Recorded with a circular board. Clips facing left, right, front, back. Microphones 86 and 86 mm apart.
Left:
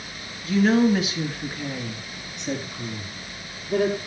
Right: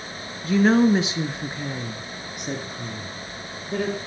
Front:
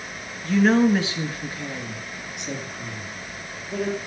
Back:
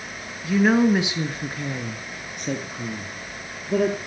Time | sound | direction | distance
0.4 | a woman speaking | 100° right | 2 m